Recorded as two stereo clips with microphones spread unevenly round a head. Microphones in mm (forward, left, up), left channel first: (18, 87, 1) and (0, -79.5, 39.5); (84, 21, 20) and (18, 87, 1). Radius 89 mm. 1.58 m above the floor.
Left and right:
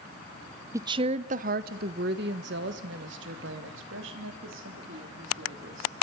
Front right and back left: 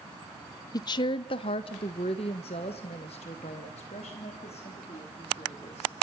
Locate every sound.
0.7 s a woman speaking: 35° right, 0.6 m; by 5.9 s 90° right, 4 m